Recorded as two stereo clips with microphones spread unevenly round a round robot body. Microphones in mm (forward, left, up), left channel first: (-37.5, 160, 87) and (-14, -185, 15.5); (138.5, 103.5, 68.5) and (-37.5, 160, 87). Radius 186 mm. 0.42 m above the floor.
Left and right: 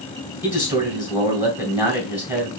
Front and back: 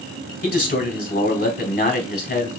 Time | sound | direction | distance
0.4 | a man speaking | 5° right | 2.5 m